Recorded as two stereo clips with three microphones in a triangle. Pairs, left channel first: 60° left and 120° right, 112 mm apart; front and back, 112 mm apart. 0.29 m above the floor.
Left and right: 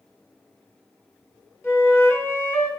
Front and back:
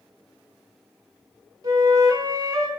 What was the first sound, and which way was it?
A flute, 125° left.